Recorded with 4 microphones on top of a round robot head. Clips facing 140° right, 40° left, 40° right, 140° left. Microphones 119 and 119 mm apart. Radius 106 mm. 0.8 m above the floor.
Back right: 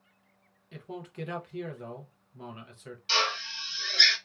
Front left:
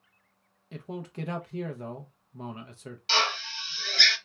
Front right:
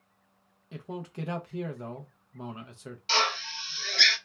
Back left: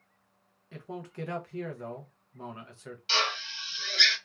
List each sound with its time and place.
0.7 s a man speaking: 15° left, 0.6 m
3.1 s a drill: 5° left, 1.3 m